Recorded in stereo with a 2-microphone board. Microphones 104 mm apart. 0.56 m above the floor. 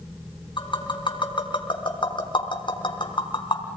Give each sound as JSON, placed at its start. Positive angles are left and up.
{"t": 0.6, "sound": "tapping", "side_deg": 50, "distance_m": 4.0}